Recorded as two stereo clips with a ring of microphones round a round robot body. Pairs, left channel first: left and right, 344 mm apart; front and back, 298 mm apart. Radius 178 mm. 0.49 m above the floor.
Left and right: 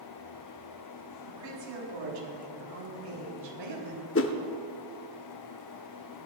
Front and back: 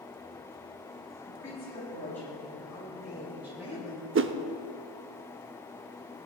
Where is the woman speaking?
80° right, 4.5 m; by 4.0 s 100° right, 3.5 m.